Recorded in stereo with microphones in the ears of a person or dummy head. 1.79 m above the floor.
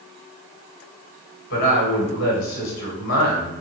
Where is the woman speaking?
60° left (ahead or behind), 1.9 m.